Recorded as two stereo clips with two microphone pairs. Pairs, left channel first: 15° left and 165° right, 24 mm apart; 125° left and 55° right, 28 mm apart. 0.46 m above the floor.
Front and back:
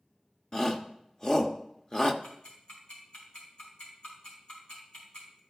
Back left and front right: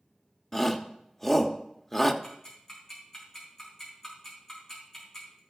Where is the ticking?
50° left, 4.5 m.